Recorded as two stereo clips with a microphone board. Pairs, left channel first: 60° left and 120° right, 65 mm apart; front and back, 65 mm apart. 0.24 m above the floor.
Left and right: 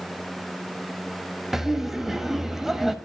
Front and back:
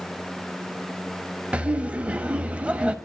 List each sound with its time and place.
1.5 s laughter: 165° left, 1.1 m